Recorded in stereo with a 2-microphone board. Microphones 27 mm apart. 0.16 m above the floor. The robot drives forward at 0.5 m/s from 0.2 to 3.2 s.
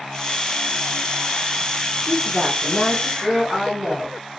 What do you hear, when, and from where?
2.0 s a woman speaking: 10° right (ahead or behind), 1.4 m; by 4.2 s 5° right (ahead or behind), 1.8 m